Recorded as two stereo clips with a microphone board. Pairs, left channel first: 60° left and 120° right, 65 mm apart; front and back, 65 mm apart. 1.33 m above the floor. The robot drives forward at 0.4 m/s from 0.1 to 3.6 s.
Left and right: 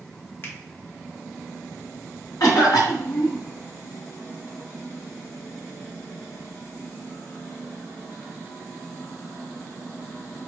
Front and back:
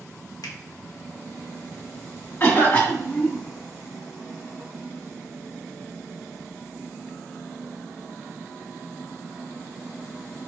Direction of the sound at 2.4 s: 60° left.